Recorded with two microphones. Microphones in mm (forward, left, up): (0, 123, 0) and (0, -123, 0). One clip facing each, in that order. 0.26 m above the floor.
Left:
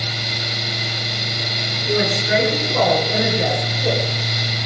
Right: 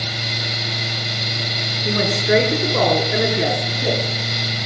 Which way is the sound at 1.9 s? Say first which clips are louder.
Right 1 dB; 60° right (ahead or behind).